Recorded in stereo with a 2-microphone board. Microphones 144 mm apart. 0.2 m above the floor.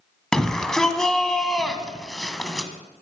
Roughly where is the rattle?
I don't hear a rattle.